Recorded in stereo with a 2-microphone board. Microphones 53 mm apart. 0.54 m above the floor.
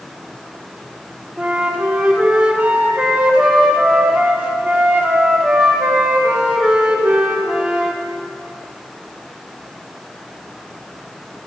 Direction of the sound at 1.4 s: 20° right (ahead or behind).